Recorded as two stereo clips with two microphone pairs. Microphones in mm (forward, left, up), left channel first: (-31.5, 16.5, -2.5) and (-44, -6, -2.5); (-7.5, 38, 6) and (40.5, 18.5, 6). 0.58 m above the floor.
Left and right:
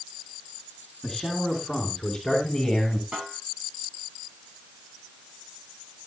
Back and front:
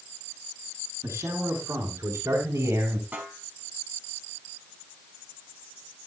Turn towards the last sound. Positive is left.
turn(degrees=-80)